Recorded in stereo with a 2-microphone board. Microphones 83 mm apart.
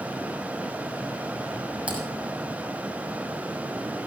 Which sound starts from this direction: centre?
Typing on a keyboard, at 1.9 s.